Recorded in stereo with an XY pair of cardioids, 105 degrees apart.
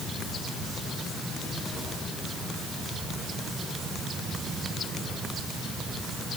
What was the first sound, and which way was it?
Only background noise.